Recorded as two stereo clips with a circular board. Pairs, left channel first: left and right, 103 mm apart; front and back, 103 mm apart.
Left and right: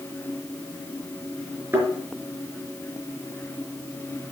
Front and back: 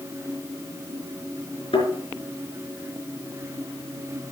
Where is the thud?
25° right, 4.5 m.